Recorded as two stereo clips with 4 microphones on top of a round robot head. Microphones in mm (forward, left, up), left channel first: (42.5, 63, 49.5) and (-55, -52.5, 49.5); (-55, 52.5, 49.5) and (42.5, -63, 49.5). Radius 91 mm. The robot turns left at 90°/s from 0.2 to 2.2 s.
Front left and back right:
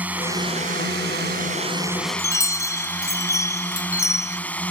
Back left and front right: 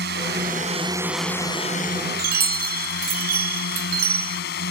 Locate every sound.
0.0 s a drone: 50° right; by 4.7 s 130° left
2.2 s a chime: 20° right